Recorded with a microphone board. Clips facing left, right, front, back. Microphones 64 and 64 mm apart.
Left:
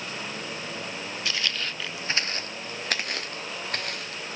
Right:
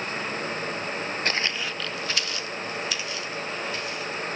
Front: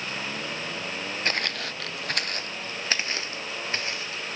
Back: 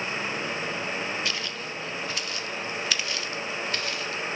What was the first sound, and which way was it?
Footsteps, 45° right.